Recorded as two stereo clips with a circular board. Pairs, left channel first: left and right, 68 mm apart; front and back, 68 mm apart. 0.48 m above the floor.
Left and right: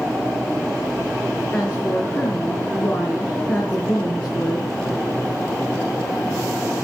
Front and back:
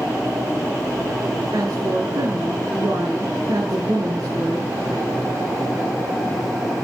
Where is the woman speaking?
165° left, 6.5 m.